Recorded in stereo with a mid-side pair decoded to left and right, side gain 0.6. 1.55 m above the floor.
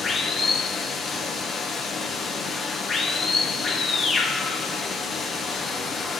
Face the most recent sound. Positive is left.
turn(degrees=25)